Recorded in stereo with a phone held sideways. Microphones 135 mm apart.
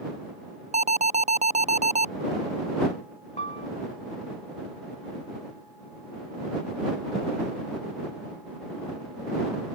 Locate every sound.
0.7 s an alarm: 60° right (ahead or behind)
3.4 s a piano: 55° left (ahead or behind)